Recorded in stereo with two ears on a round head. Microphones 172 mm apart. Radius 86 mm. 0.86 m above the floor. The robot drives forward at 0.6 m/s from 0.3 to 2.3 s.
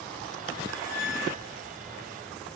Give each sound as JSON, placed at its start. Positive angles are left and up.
{"t": 0.6, "sound": "a squeak", "side_deg": -65, "distance_m": 4.0}